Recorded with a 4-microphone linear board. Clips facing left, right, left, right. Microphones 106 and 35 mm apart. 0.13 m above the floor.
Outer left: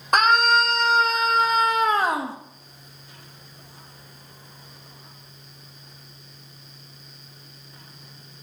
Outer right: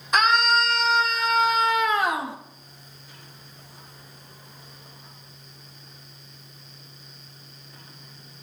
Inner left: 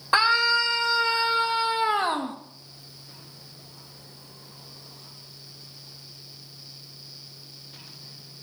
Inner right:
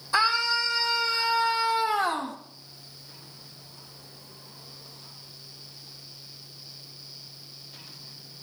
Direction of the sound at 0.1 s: 55° left (ahead or behind).